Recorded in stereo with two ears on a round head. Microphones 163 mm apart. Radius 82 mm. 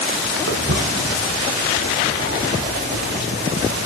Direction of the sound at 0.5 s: 75° right (ahead or behind).